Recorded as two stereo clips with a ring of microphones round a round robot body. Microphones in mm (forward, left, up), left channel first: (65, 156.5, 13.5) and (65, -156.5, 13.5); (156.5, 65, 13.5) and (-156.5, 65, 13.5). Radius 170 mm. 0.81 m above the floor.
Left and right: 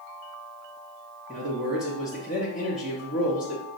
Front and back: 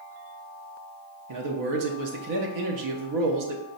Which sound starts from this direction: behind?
A man speaking, at 1.3 s.